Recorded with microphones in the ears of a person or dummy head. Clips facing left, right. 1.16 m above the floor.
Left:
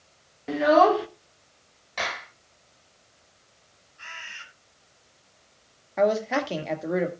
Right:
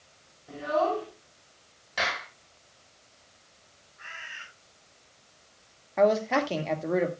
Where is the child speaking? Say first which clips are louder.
Left 9 dB; 75° left (ahead or behind), 1.1 m.